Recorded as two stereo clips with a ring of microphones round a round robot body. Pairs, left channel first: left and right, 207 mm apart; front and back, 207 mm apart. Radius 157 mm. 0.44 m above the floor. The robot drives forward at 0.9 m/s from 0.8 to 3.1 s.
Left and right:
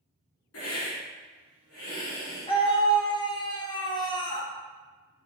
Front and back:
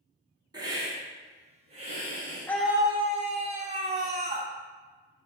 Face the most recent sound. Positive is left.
turn(degrees=145)